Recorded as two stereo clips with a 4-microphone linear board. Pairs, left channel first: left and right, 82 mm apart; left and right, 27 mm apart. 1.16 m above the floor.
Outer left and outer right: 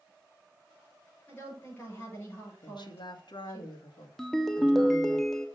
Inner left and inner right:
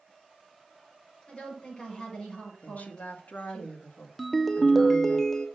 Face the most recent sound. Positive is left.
turn(degrees=5)  # may be behind; listen again after turning